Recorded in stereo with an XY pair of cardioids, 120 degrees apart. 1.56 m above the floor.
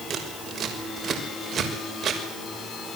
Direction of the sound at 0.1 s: 40° right.